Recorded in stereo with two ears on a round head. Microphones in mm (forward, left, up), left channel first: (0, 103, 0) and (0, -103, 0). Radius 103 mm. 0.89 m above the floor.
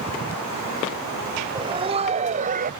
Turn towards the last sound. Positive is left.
turn(degrees=-40)  # may be behind; listen again after turning